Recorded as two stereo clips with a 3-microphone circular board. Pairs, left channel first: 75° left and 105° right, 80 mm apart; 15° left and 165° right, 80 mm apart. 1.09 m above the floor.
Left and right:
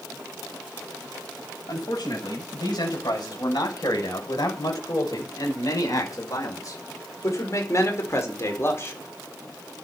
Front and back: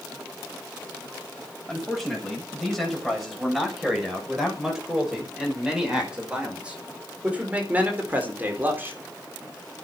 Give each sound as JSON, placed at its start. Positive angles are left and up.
{"t": 1.7, "sound": "a man speaking", "azimuth_deg": 105, "distance_m": 7.5}